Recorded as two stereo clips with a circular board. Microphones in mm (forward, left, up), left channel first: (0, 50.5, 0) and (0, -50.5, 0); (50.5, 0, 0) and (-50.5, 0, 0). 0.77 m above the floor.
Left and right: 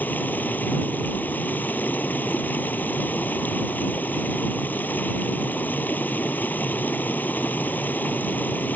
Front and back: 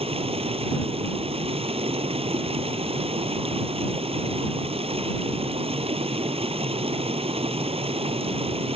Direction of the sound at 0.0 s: 165° left.